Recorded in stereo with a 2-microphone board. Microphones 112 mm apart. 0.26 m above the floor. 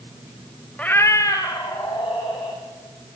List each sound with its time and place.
0.8 s a cat meowing: 10° left (ahead or behind), 0.6 m; by 2.6 s 40° left (ahead or behind), 3.5 m